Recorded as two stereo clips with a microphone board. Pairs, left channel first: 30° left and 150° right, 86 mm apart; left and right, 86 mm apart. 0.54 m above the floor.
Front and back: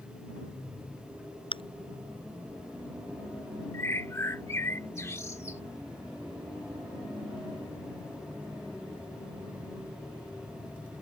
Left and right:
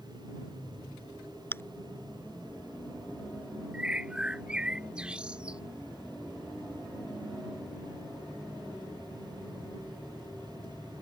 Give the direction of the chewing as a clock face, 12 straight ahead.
11 o'clock.